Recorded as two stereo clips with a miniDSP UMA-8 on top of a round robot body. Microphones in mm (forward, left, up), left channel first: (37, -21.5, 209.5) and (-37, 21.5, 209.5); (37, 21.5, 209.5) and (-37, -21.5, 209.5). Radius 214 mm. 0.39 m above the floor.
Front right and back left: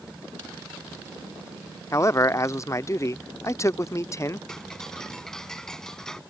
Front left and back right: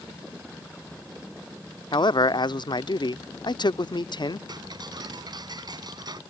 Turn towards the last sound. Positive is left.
turn(degrees=-115)